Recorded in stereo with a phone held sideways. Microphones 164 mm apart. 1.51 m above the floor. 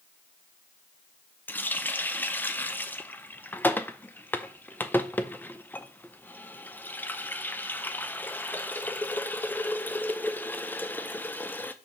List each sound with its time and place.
1.5 s a running tap: 10° left (ahead or behind), 0.6 m